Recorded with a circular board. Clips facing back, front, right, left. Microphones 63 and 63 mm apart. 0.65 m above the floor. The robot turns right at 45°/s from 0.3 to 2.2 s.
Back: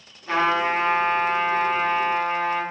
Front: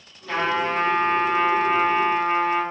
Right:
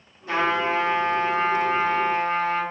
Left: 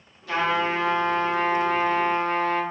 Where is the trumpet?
135° right, 1.0 m; by 2.6 s 50° right, 1.0 m.